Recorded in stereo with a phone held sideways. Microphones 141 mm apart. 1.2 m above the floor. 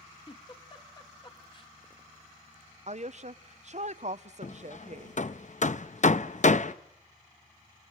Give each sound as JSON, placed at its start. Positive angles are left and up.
{"t": 0.3, "sound": "a giggle", "side_deg": 35, "distance_m": 1.5}
{"t": 2.9, "sound": "a woman speaking", "side_deg": -55, "distance_m": 0.6}
{"t": 4.4, "sound": "hammering", "side_deg": 60, "distance_m": 0.6}